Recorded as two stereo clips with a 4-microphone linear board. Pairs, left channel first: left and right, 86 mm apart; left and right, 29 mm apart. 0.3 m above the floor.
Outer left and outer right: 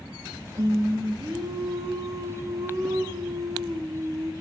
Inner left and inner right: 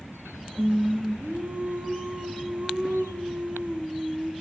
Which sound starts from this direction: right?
Singing, at 0.6 s.